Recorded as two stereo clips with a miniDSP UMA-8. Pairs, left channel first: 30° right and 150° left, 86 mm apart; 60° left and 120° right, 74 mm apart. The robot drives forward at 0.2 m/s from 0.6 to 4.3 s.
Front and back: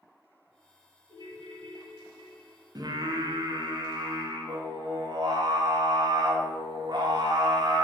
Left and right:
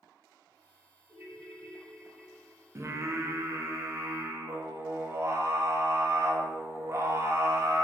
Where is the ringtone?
170° left, 1.7 m; by 2.6 s 175° left, 2.0 m.